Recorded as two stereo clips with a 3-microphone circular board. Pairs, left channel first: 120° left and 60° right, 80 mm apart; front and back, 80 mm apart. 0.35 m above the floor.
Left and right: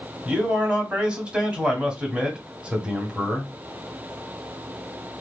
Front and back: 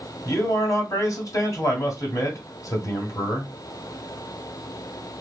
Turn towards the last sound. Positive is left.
turn(degrees=10)